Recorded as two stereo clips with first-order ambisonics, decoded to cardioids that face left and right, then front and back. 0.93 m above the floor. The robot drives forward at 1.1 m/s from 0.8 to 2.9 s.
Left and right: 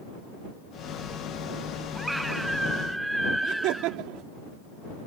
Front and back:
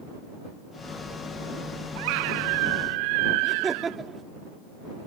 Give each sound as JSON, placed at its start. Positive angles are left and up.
{"t": 1.9, "sound": "a scream", "azimuth_deg": -175}
{"t": 3.4, "sound": "laughter", "azimuth_deg": -110}